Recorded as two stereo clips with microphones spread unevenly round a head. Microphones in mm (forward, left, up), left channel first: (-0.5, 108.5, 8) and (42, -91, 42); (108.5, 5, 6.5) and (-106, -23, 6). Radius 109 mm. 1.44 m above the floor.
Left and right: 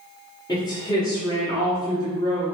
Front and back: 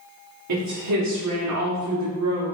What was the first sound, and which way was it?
A woman speaking, 175° left.